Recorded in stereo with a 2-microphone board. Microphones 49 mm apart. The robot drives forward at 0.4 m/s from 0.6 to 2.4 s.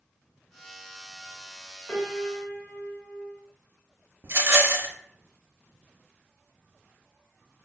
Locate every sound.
1.9 s a piano: 25° left (ahead or behind), 1.0 m
4.2 s a rattle: 55° right (ahead or behind), 0.6 m